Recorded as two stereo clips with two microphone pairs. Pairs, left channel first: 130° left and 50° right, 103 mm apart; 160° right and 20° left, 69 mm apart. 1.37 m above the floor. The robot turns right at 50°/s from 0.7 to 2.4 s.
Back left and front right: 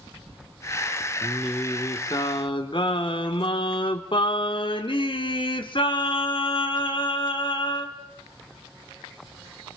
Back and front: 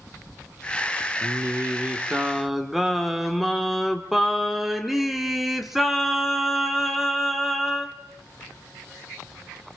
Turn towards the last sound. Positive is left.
turn(degrees=105)